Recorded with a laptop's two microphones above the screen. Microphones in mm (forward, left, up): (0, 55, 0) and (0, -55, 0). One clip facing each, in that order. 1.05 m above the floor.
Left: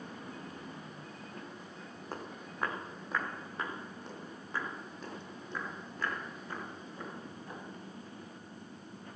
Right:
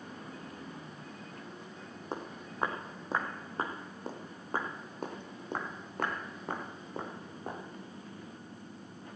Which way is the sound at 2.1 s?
20° right (ahead or behind).